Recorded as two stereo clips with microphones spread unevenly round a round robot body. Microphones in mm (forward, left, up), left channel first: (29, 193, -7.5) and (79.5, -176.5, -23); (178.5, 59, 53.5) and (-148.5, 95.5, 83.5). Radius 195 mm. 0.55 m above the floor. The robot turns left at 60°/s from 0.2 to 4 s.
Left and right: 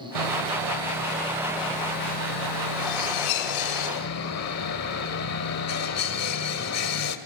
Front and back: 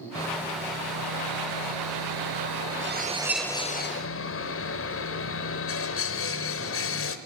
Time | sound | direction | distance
0.1 | sawing | 85° right | 1.4 m